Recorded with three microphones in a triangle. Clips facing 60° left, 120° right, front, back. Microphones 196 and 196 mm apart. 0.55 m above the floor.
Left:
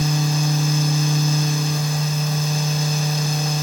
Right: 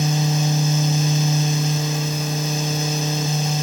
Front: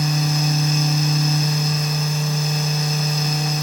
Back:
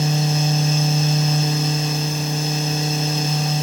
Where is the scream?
I don't hear a scream.